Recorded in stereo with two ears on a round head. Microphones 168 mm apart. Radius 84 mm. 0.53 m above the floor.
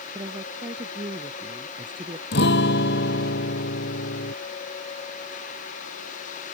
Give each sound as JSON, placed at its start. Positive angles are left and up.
{"t": 0.1, "sound": "a woman speaking", "side_deg": -25}
{"t": 2.3, "sound": "a guitar", "side_deg": 65}